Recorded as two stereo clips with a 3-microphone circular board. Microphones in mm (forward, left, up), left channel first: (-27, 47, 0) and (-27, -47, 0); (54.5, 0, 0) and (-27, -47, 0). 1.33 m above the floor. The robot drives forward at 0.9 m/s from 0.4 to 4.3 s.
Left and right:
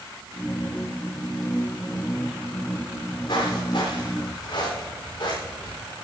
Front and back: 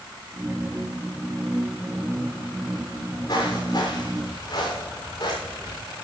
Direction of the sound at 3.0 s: 65° left.